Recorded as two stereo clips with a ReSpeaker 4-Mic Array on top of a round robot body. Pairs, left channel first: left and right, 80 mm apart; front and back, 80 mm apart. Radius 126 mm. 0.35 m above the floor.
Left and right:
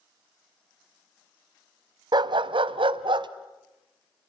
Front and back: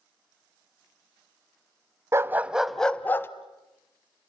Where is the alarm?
No alarm in this recording.